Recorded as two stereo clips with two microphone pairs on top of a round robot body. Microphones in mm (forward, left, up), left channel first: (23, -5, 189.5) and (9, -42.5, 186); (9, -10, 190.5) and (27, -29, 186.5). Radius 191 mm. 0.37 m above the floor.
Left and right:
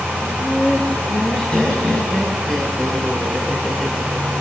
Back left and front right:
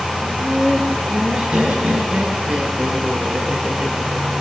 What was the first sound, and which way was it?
Laughter, 5° left.